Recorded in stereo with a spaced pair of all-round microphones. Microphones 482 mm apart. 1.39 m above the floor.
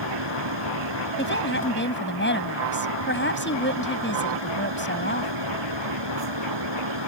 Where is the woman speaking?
25° left (ahead or behind).